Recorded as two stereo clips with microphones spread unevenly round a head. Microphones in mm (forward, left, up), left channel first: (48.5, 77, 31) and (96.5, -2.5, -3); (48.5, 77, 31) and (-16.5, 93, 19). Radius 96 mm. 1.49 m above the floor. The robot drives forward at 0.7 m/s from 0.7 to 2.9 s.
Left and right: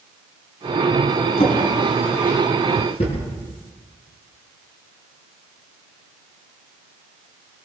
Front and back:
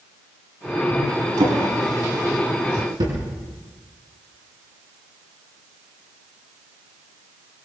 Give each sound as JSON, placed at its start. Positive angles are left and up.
{"t": 1.4, "sound": "a drawer", "azimuth_deg": 165, "distance_m": 6.5}